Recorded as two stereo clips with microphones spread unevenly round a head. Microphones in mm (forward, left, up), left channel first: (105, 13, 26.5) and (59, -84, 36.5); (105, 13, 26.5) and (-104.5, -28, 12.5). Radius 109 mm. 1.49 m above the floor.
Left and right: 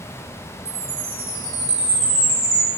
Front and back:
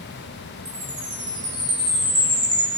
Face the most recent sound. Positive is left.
turn(degrees=-100)